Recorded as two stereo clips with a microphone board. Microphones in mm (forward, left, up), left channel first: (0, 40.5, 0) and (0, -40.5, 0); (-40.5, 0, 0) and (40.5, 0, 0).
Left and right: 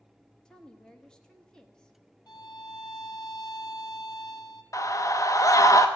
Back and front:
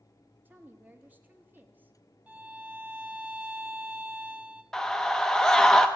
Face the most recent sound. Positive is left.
turn(degrees=100)